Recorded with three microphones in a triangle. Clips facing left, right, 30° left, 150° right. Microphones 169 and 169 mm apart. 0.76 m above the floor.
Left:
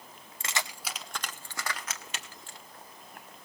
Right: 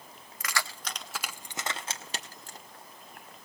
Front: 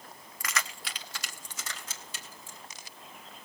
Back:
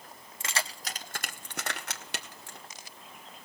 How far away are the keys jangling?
About 0.8 m.